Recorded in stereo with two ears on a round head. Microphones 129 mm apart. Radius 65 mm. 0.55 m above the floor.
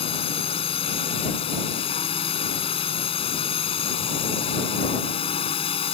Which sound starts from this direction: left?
A drone, at 0.0 s.